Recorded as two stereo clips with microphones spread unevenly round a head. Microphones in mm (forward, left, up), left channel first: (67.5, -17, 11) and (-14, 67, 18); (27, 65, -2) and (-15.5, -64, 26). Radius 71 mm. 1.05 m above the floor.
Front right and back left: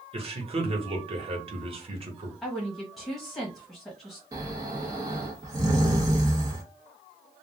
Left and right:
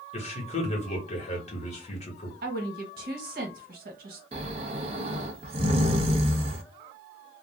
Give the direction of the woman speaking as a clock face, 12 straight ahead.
4 o'clock.